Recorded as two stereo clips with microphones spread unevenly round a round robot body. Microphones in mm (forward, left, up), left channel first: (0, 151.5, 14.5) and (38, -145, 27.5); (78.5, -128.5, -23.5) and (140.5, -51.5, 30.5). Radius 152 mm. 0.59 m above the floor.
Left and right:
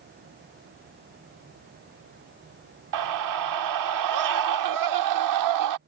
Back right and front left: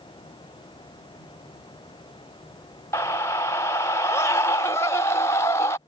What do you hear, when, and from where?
2.9 s a scream: 95° right